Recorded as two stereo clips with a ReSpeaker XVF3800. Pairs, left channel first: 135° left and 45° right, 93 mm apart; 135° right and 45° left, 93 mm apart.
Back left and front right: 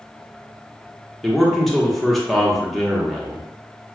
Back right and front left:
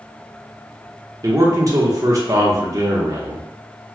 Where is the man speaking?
50° left, 1.0 m.